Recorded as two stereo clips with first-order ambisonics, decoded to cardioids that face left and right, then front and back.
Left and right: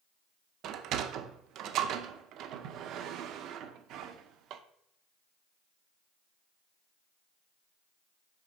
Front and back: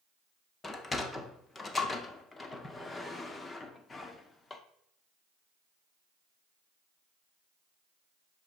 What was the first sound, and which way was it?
A sliding door, 70° right.